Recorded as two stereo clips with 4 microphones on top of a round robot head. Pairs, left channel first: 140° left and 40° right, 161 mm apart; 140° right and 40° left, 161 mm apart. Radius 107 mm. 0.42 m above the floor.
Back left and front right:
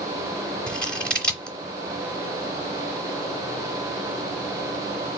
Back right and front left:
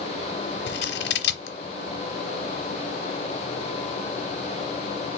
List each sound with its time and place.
0.7 s scissors: 135° right, 0.7 m